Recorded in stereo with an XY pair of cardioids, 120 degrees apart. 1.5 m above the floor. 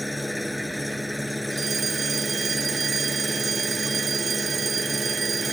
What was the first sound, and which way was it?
An engine running, straight ahead.